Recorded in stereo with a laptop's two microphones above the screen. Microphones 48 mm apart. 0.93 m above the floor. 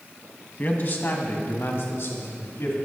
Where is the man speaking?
45° left (ahead or behind), 1.4 m; by 2.8 s 70° left (ahead or behind), 3 m.